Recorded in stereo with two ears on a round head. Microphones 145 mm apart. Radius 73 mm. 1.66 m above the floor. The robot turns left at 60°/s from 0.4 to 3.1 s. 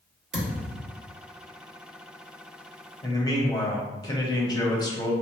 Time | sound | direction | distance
0.3 | a thud | 55° right (ahead or behind) | 1.8 m
3.0 | a man speaking | 20° left (ahead or behind) | 1.0 m